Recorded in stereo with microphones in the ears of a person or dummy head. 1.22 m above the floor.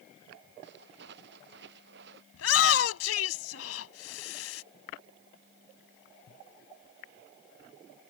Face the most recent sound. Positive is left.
turn(degrees=80)